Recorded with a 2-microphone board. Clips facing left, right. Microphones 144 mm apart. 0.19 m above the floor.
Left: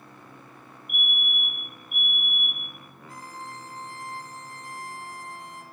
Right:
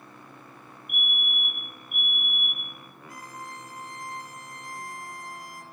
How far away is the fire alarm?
About 7 m.